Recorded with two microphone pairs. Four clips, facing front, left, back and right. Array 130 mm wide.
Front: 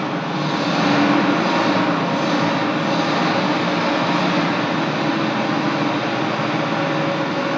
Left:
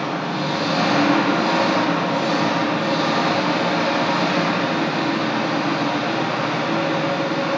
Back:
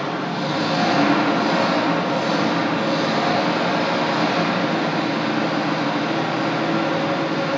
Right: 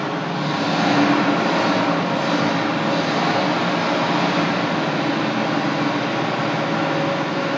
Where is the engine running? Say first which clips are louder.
Even, front 2 dB; 15° left, 2.0 m.